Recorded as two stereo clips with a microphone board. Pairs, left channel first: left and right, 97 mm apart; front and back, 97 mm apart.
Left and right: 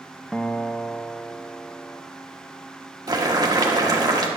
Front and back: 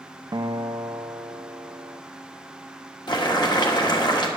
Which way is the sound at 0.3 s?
170° left.